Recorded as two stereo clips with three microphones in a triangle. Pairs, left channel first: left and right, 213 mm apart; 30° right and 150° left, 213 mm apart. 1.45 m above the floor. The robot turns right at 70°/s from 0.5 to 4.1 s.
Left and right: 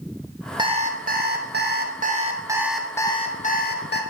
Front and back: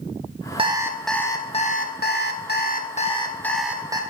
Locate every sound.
0.6 s an alarm clock: 150° right, 1.0 m; by 4.0 s 85° left, 1.0 m